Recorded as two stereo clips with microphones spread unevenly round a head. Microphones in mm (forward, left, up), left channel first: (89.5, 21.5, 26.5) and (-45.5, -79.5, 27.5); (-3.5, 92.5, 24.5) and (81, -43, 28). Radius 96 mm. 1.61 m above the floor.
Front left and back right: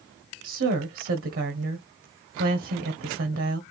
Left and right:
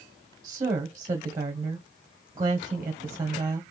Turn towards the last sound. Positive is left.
turn(degrees=-130)